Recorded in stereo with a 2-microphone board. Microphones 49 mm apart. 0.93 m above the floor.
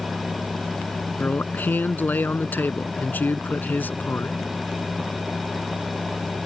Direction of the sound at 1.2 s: 35° left (ahead or behind).